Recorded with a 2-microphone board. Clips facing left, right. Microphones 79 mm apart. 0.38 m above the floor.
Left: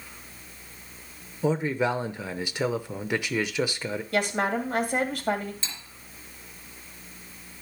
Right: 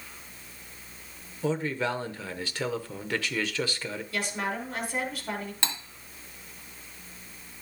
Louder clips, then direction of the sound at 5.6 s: Right 7 dB; 75° right (ahead or behind).